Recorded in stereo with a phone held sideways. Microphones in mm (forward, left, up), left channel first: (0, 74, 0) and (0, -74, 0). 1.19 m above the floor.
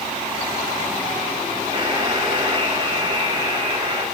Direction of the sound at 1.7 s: 35° right (ahead or behind).